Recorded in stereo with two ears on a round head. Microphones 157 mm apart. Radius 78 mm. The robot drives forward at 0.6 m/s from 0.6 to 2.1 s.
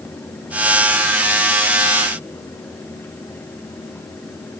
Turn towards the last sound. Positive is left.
No sound to turn to.